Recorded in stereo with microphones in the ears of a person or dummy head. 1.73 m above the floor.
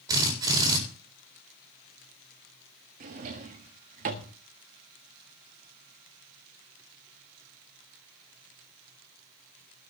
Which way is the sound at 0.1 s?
25° right (ahead or behind).